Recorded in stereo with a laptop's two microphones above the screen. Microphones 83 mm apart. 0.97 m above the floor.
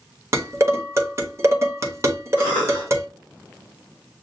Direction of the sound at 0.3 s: 35° right (ahead or behind).